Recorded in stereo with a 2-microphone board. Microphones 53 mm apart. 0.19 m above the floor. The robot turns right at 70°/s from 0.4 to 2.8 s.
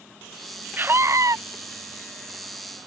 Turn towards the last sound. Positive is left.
turn(degrees=-5)